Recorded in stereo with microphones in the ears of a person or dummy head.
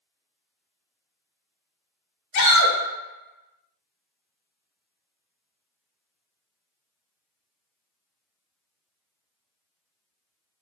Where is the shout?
55° left (ahead or behind), 0.8 m.